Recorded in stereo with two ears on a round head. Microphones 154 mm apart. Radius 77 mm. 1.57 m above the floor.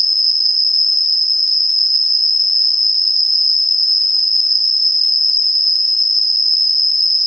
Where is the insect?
25° left (ahead or behind), 1.4 m.